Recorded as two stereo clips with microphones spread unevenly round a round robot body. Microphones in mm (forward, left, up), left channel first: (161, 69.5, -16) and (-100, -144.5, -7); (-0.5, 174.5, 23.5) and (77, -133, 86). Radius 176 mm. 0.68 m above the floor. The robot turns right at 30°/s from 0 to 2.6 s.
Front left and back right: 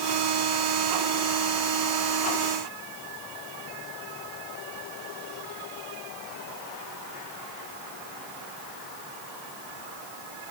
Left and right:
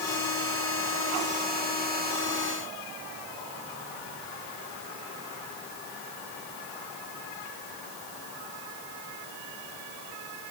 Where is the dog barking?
No dog barking in this recording.